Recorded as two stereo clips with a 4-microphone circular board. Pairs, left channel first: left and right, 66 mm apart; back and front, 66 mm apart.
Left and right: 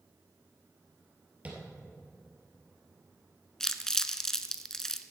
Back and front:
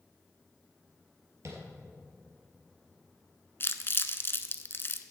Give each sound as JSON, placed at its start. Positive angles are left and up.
{"t": 1.4, "sound": "tapping", "azimuth_deg": -25, "distance_m": 2.5}
{"t": 3.6, "sound": "crumpling", "azimuth_deg": 170, "distance_m": 0.6}